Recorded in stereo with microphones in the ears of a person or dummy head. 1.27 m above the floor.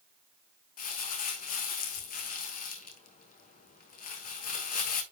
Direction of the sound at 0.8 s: 45° left (ahead or behind).